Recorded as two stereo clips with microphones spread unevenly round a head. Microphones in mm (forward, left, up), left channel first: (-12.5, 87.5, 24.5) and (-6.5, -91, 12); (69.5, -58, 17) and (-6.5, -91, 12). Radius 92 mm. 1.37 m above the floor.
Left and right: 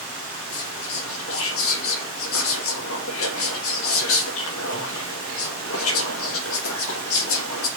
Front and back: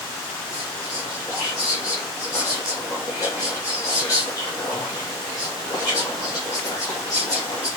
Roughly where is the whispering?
Left.